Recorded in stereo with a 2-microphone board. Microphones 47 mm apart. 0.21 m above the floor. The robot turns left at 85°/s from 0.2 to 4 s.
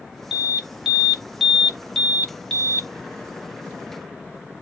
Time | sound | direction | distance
0.3 | an alarm | 20° right (ahead or behind) | 1.2 m